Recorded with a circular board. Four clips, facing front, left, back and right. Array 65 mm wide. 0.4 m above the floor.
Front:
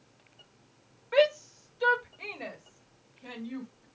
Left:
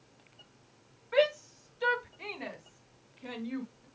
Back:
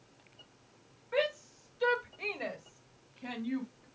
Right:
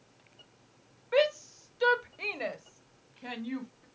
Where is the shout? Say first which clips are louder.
Right 1 dB, front 8 dB; 40° right, 1.4 m; by 3.9 s 115° right, 3.5 m.